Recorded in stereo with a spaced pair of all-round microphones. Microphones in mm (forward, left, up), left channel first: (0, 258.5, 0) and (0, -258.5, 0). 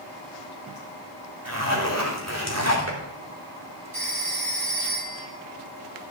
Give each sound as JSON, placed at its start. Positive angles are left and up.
{"t": 1.4, "sound": "a zipper", "side_deg": -30, "distance_m": 3.0}
{"t": 3.9, "sound": "a phone ringing", "side_deg": -75, "distance_m": 7.5}